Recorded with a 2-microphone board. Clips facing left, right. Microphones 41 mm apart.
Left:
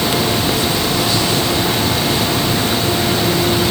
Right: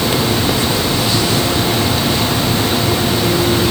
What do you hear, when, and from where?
Only background noise.